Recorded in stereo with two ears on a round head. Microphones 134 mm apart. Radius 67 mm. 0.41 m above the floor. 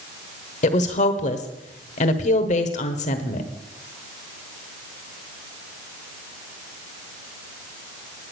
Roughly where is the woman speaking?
Left.